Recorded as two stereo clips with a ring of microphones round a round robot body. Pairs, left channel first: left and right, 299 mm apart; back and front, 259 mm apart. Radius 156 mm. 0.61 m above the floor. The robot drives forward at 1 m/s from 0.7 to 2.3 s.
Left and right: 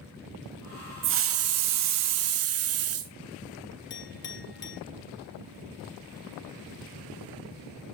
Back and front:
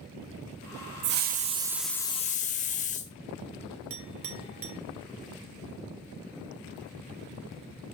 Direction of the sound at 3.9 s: 35° left.